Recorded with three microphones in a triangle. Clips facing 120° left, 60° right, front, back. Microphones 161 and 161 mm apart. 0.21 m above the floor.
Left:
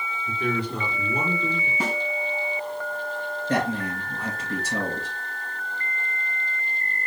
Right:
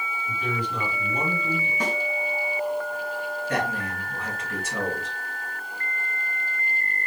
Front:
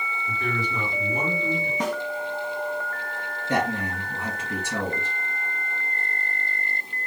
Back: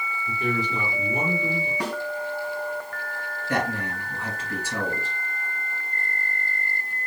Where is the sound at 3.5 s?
70° left, 2.5 m.